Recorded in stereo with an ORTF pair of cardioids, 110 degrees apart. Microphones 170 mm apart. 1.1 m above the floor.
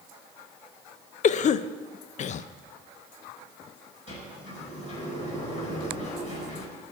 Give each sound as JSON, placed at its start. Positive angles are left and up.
{"t": 1.2, "sound": "a cough", "azimuth_deg": 45, "distance_m": 0.6}
{"t": 4.1, "sound": "a sliding door", "azimuth_deg": 45, "distance_m": 5.0}